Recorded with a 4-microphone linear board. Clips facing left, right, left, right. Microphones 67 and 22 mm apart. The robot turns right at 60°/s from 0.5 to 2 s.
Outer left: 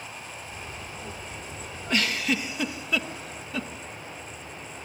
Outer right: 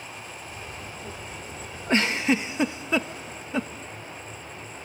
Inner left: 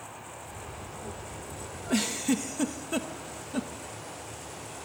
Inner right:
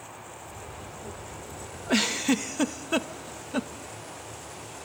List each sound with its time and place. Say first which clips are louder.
1.9 s a giggle: outer right 4 dB, inner right 3 dB; 35° right (ahead or behind), 0.9 m; by 3.7 s 30° right (ahead or behind), 0.9 m